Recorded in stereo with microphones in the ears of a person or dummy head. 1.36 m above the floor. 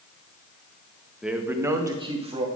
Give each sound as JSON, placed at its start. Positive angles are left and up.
{"t": 1.2, "sound": "a man speaking", "side_deg": -5, "distance_m": 0.7}